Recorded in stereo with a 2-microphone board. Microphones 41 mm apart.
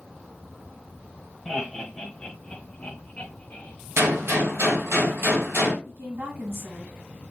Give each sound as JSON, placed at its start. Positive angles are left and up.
{"t": 1.4, "sound": "laughter", "side_deg": 10, "distance_m": 1.2}
{"t": 4.0, "sound": "a gunshot", "side_deg": -80, "distance_m": 1.7}
{"t": 5.8, "sound": "a woman speaking", "side_deg": -65, "distance_m": 2.5}